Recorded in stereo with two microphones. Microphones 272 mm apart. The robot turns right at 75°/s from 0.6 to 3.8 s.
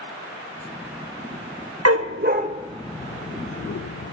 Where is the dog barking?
65° right (ahead or behind), 0.6 m; by 4.1 s 65° left (ahead or behind), 0.6 m.